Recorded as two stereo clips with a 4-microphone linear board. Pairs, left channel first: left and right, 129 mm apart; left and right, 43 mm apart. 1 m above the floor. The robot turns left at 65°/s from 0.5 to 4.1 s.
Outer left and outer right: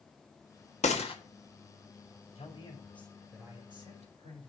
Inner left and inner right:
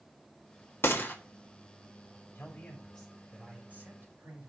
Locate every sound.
0.8 s a gunshot: 60° left (ahead or behind), 1.4 m; by 1.1 s 40° left (ahead or behind), 1.4 m
2.4 s a man speaking: 50° left, 3 m; by 4.5 s 60° right, 3 m